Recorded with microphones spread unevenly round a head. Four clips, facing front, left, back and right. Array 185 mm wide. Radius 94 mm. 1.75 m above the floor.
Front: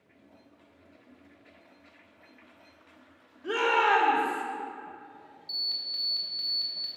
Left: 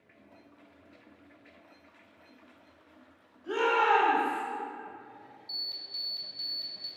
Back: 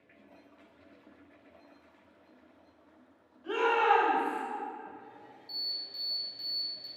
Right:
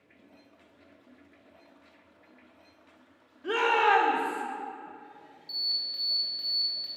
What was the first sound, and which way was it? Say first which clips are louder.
A shout: right 2 dB, front 1 dB; 55° right.